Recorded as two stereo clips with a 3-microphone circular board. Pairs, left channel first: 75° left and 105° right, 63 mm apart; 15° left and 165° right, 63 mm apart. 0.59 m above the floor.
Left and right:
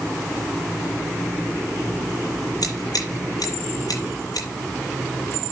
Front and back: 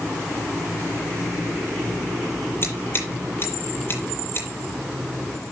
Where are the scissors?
65° left, 7 m.